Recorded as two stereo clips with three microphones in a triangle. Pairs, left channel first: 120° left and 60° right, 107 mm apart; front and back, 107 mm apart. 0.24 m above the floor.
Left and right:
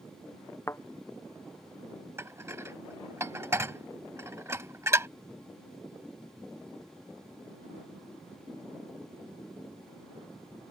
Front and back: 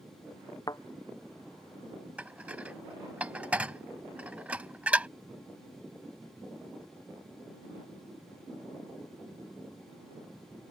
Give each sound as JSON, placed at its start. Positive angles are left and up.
{"t": 0.7, "sound": "a thud", "azimuth_deg": 55}
{"t": 2.2, "sound": "dishes clattering", "azimuth_deg": -110}